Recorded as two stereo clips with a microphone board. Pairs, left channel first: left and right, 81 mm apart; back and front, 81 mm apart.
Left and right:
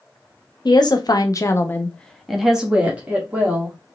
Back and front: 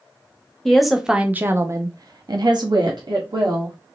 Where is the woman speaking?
95° left, 1.0 m; by 3.8 s 25° right, 1.7 m.